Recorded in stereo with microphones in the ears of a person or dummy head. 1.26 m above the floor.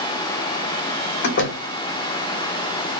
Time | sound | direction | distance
1.2 | a door slam | 60° left (ahead or behind) | 0.5 m